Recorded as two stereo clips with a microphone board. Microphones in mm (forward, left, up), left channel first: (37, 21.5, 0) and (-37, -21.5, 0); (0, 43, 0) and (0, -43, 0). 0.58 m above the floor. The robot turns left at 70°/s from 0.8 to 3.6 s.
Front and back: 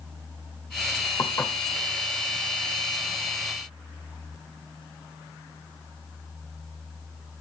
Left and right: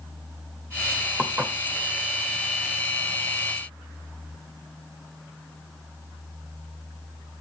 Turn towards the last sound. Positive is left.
turn(degrees=180)